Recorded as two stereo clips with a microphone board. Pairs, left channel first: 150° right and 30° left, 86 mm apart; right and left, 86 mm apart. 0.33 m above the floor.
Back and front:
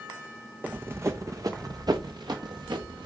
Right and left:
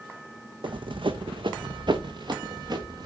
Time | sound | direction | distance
0.6 | running footsteps | 100° left | 1.1 m